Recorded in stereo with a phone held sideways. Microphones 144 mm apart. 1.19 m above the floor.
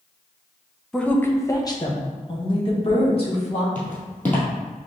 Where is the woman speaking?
5° left (ahead or behind), 0.6 m; by 3.6 s 45° left (ahead or behind), 1.9 m.